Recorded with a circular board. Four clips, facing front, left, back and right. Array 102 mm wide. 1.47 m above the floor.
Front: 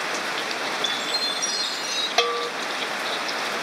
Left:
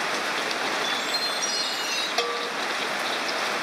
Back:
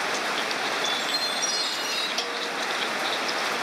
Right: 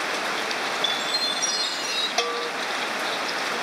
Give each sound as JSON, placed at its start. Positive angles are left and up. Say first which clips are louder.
{"t": 0.8, "sound": "a chime", "louder": "even, even", "azimuth_deg": -60, "distance_m": 9.0}
{"t": 2.2, "sound": "a bell", "louder": "right 2 dB, front 8 dB", "azimuth_deg": -10, "distance_m": 1.1}